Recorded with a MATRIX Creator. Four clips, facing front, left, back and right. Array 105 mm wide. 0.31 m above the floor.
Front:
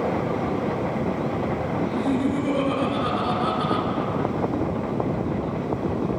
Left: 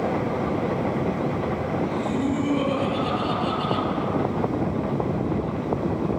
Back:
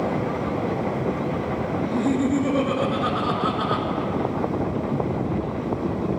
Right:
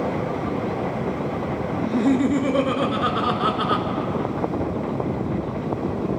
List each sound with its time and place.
1.8 s laughter: 105° right, 5 m